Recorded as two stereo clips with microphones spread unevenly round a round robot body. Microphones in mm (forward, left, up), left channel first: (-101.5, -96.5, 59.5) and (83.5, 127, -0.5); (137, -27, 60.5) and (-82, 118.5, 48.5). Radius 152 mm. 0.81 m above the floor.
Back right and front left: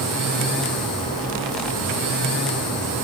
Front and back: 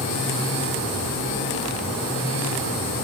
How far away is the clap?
No clap in this recording.